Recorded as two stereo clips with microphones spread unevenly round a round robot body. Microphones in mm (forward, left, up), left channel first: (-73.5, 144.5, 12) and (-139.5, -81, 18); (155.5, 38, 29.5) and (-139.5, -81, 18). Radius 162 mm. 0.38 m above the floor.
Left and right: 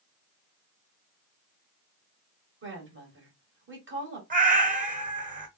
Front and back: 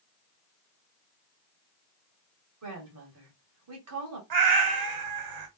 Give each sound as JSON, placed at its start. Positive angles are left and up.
{"t": 2.6, "sound": "a woman speaking", "azimuth_deg": -135, "distance_m": 2.0}
{"t": 4.3, "sound": "a cat meowing", "azimuth_deg": -165, "distance_m": 1.2}